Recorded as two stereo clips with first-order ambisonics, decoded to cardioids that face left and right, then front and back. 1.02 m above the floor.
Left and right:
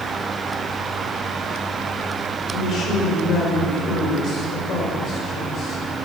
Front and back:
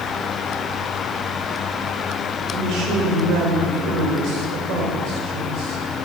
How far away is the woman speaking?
About 4 m.